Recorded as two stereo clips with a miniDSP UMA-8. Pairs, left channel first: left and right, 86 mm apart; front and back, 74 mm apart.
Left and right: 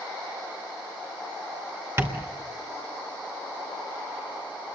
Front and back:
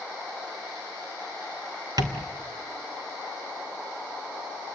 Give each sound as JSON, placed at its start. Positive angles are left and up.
{"t": 2.0, "sound": "tapping", "azimuth_deg": -150, "distance_m": 2.5}